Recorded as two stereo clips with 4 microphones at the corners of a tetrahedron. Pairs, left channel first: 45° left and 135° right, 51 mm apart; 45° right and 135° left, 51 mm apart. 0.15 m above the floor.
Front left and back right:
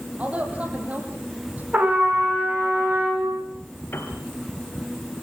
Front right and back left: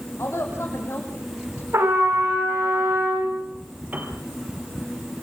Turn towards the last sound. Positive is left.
turn(degrees=85)